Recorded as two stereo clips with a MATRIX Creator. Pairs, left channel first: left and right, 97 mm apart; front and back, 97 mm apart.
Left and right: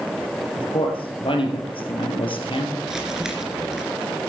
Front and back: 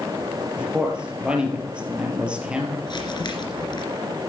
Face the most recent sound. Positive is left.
turn(degrees=-5)